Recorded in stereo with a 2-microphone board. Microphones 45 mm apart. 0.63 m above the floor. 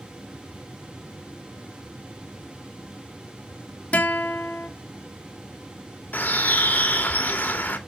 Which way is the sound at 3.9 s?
30° left (ahead or behind).